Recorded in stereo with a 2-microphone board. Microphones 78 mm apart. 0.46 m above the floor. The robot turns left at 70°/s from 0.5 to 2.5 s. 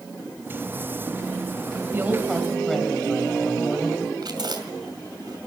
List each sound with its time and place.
1.9 s a woman speaking: 145° right, 2.5 m; by 4.1 s 175° left, 2.5 m
4.2 s chewing: 65° right (ahead or behind), 2.5 m